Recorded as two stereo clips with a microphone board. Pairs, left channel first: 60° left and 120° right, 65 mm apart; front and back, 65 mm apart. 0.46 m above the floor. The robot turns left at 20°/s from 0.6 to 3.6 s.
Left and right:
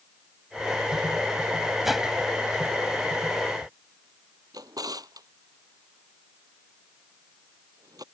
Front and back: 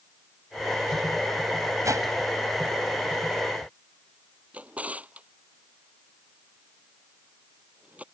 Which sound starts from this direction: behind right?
A drawer, at 4.5 s.